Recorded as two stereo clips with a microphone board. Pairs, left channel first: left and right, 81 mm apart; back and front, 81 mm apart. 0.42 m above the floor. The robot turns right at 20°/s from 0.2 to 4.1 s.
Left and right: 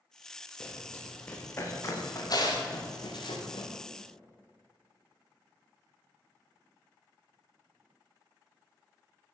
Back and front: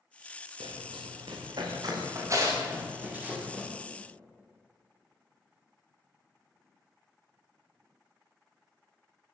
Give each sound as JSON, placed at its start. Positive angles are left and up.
{"t": 0.6, "sound": "running footsteps", "azimuth_deg": 10, "distance_m": 7.5}